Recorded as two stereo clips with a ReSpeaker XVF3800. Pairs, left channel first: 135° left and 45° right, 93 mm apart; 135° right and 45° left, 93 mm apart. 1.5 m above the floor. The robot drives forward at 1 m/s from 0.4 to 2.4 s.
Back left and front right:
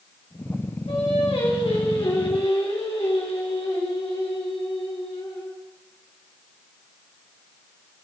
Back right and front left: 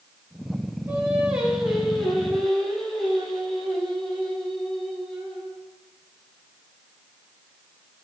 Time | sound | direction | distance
0.9 | singing | 115° left | 2.5 m